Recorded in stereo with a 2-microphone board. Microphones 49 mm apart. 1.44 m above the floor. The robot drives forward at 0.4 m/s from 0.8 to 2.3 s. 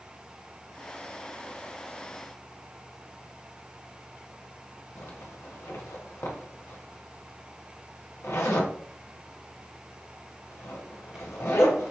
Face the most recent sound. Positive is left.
turn(degrees=65)  # may be behind; listen again after turning